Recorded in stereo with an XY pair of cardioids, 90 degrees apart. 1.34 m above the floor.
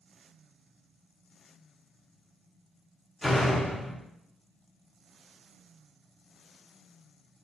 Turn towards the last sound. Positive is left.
turn(degrees=15)